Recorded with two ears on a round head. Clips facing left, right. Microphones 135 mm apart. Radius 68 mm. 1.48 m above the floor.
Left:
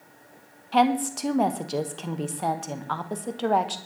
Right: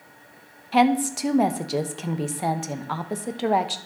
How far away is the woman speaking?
About 1.1 m.